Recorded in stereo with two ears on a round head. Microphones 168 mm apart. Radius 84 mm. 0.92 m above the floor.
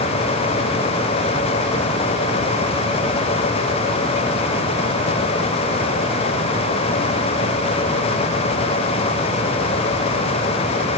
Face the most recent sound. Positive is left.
No sound to turn to.